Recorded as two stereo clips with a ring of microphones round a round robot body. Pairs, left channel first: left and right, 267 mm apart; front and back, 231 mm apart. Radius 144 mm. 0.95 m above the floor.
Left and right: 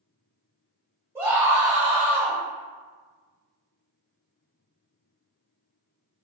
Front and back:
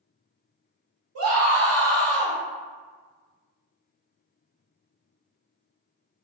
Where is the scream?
170° right, 1.8 m.